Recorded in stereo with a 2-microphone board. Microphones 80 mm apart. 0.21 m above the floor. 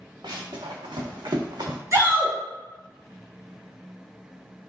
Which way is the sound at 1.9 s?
40° right (ahead or behind).